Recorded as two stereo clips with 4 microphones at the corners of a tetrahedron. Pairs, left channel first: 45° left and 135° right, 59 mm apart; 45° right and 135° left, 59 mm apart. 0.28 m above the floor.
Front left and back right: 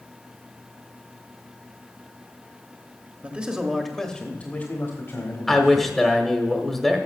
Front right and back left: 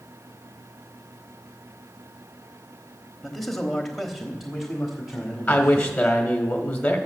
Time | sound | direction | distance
3.2 | a man speaking | 125° right | 1.1 m
5.5 | a man speaking | 35° right | 1.0 m